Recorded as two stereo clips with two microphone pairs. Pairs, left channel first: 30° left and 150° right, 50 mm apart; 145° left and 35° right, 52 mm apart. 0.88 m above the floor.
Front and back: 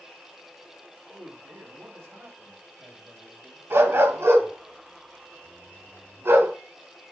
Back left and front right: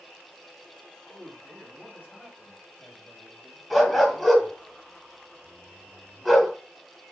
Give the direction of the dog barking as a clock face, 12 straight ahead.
4 o'clock.